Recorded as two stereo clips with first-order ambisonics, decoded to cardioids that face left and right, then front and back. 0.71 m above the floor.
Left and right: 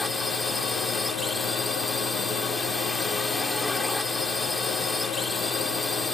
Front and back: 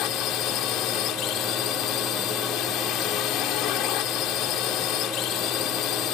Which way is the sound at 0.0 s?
5° left.